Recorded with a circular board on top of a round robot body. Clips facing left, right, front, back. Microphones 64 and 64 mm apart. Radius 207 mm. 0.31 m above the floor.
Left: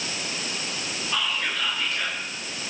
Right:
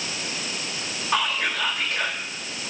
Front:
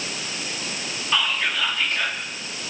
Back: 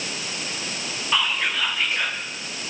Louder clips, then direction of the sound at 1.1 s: Right 4 dB, even; 100° right.